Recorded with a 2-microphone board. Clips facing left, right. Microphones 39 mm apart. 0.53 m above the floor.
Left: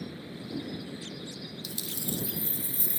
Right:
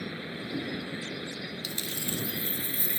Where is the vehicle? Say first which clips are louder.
Right 4 dB; 60° right (ahead or behind).